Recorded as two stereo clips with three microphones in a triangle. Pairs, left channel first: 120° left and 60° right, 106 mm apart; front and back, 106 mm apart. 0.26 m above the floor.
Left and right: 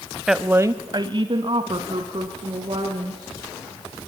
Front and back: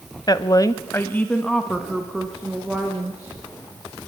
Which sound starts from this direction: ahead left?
A woman speaking, at 0.3 s.